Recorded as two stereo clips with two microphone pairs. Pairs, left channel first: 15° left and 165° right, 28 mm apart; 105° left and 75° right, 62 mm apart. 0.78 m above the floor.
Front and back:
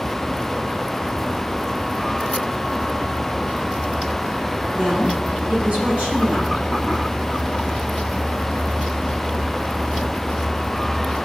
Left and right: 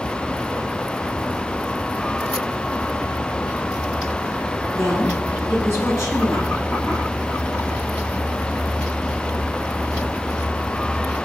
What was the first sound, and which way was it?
A woman speaking, 150° left.